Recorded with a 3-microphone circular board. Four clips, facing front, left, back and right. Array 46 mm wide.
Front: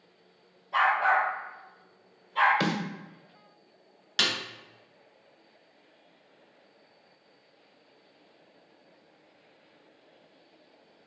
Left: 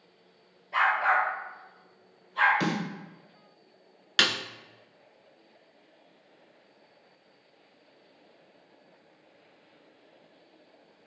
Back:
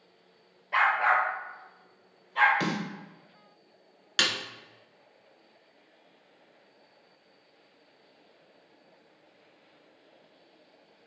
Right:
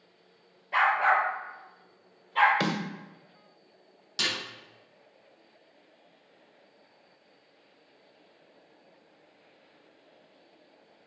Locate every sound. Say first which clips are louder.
0.7 s a dog barking: right 1 dB, even; 145° right, 3 m; by 2.5 s 100° right, 4 m
2.6 s a snare drum: even, front 2 dB; 65° right, 1.6 m
4.2 s a snare drum: left 6 dB, back 1 dB; 95° left, 1.0 m